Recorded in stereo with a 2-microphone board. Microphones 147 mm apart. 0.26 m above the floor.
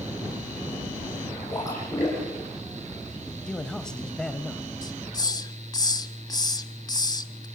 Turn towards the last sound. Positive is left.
turn(degrees=25)  # may be behind; listen again after turning